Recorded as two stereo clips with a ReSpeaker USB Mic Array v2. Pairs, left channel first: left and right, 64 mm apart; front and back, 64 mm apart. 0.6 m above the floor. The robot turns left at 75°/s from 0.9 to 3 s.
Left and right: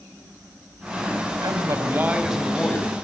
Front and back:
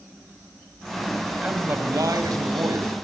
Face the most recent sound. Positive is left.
turn(degrees=135)